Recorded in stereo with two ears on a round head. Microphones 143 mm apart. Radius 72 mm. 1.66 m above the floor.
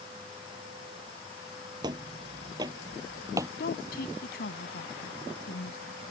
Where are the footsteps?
25° right (ahead or behind); by 3.5 s 20° right (ahead or behind).